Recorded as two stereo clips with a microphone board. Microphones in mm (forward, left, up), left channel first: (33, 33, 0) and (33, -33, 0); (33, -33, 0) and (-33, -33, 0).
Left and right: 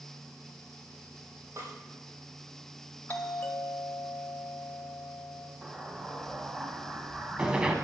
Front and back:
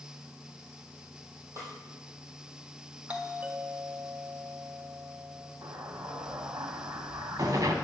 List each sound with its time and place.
1.6 s a snare drum: 135° right, 4 m
3.1 s a doorbell: 125° left, 1.8 m
5.6 s an explosion: 165° right, 1.7 m